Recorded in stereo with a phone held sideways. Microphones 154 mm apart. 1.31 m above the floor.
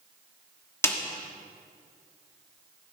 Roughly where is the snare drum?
Centre.